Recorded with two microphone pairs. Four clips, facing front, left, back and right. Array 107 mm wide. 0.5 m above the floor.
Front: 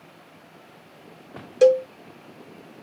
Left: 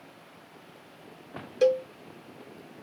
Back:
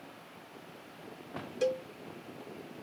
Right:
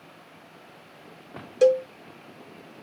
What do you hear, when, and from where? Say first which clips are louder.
1.6 s a cowbell: right 4 dB, front 16 dB; 15° right